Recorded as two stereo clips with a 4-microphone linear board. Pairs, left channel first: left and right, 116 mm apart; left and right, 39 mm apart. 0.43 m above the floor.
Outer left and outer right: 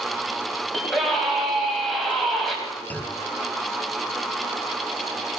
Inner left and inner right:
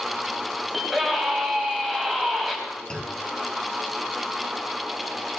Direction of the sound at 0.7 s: Centre (ahead or behind).